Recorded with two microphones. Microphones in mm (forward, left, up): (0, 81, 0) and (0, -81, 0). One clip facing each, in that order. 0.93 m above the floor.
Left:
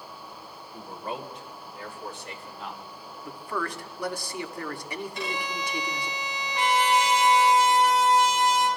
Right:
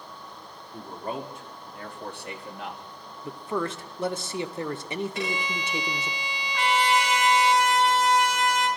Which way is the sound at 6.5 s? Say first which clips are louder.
Even; 25° left (ahead or behind).